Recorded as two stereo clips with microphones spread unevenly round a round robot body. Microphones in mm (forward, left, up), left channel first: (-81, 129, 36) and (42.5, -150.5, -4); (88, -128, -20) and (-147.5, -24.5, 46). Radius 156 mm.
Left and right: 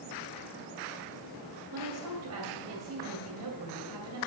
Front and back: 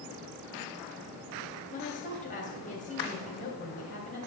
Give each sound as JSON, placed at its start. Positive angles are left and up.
{"t": 1.7, "sound": "a woman speaking", "azimuth_deg": -65, "distance_m": 2.5}